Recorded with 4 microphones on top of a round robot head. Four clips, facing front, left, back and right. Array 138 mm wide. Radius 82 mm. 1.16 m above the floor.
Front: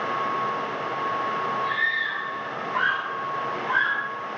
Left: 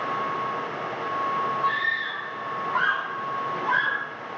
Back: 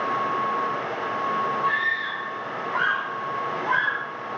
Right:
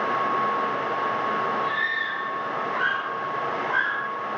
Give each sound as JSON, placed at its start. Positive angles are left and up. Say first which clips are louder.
{"t": 1.6, "sound": "a scream", "louder": "left 1 dB, back 2 dB", "azimuth_deg": 135, "distance_m": 9.0}